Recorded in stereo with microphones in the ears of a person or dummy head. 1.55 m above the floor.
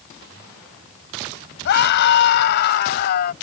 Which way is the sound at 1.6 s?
60° left (ahead or behind).